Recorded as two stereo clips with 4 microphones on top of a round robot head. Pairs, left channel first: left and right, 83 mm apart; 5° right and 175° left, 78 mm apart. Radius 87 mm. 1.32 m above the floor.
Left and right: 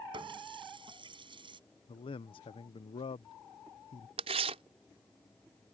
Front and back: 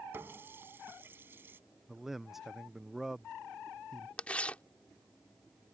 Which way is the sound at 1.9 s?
90° left.